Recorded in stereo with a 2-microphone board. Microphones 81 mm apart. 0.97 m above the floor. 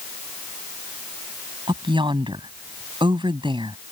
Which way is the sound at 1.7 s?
85° right.